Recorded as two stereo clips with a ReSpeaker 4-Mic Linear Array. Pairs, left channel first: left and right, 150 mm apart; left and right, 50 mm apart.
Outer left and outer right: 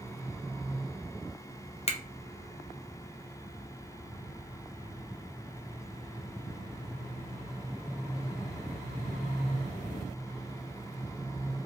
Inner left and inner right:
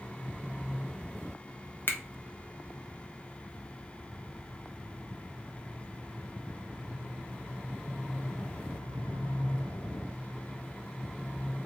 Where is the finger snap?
45° left (ahead or behind), 0.5 m.